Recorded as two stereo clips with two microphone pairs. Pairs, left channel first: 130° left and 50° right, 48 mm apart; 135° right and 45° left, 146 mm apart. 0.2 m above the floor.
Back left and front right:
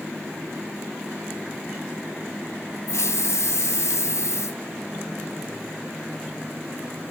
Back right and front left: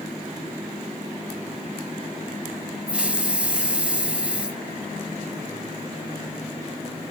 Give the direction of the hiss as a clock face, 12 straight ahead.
8 o'clock.